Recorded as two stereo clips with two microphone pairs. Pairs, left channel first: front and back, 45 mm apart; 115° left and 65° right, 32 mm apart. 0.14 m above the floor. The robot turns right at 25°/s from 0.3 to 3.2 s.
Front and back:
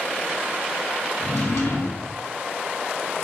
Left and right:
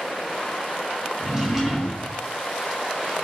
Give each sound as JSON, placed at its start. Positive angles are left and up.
{"t": 1.2, "sound": "a drawer", "azimuth_deg": 0, "distance_m": 1.8}